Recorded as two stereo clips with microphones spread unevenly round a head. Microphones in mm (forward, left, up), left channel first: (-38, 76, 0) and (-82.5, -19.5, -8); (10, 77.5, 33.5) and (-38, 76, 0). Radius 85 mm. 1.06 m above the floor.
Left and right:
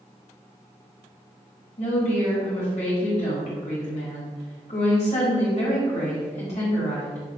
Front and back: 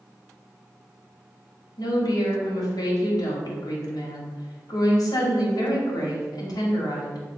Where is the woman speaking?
20° left, 1.2 m.